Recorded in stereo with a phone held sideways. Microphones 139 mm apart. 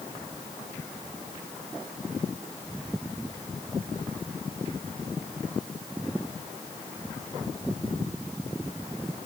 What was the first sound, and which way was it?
Only background noise.